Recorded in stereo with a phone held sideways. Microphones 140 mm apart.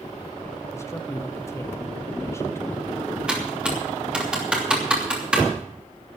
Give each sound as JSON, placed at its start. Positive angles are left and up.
{"t": 0.7, "sound": "a man speaking", "side_deg": 20, "distance_m": 1.4}
{"t": 3.3, "sound": "typing on a keyboard", "side_deg": -5, "distance_m": 3.0}